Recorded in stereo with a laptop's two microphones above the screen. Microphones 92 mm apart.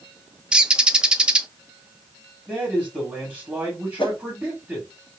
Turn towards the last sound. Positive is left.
turn(degrees=65)  # may be behind; listen again after turning